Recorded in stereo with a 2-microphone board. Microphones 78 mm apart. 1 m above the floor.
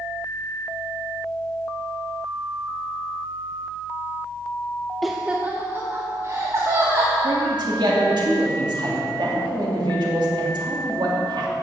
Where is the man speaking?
70° right (ahead or behind), 2.5 m.